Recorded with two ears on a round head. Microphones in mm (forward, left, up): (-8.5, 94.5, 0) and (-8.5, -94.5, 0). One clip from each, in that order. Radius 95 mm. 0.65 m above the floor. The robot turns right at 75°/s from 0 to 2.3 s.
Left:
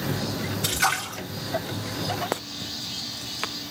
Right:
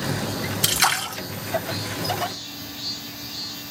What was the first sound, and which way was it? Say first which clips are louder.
A splash: right 3 dB; 105° right.